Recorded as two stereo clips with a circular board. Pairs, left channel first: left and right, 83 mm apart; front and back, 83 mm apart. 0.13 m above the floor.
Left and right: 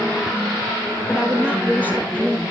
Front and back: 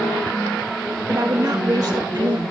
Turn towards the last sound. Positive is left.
turn(degrees=-135)